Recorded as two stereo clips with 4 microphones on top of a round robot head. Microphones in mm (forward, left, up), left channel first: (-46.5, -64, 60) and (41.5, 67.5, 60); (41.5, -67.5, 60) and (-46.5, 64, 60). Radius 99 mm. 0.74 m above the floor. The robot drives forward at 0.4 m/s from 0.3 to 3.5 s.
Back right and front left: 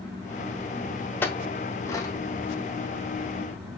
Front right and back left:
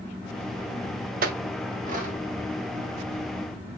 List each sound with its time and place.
1.2 s a clink: 160° left, 0.8 m; by 2.1 s 165° left, 1.1 m